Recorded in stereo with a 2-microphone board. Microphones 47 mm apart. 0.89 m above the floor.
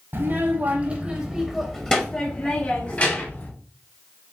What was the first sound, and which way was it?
A child speaking, 60° right (ahead or behind).